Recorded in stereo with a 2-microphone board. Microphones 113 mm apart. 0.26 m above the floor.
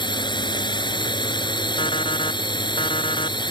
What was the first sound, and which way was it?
A drone, 40° left (ahead or behind).